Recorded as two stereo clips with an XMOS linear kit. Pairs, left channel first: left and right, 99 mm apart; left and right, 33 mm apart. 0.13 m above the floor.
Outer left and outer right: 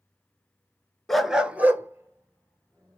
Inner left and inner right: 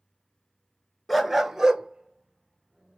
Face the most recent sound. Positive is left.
turn(degrees=-35)  # may be behind; listen again after turning